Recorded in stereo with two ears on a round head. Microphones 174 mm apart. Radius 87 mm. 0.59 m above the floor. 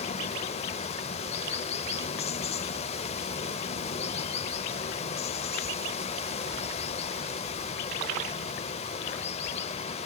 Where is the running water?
30° left (ahead or behind), 0.7 m.